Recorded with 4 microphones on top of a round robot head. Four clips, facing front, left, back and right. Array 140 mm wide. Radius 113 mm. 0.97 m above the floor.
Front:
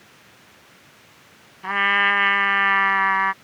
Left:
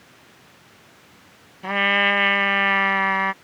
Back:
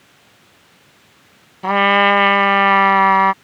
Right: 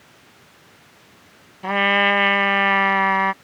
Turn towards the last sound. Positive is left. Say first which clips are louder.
# right 3 dB, back 8 dB
turn(degrees=-175)